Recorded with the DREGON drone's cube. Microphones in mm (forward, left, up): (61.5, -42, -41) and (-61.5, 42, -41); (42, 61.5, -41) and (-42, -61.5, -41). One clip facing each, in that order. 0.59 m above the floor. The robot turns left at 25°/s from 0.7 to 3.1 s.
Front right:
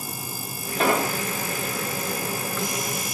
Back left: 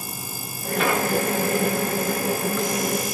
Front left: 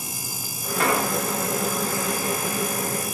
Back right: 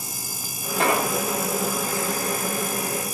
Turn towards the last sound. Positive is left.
turn(degrees=-130)